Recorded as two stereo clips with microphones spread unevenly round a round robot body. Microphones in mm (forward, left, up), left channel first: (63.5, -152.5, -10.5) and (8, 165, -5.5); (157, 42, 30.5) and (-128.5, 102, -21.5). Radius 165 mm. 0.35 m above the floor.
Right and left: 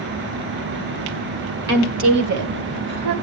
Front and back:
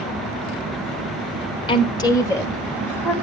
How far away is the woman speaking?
About 1.2 m.